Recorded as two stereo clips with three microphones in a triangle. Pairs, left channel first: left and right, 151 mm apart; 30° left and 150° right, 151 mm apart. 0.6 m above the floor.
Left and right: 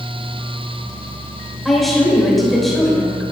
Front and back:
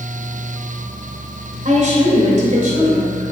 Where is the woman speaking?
Straight behind, 2.5 m.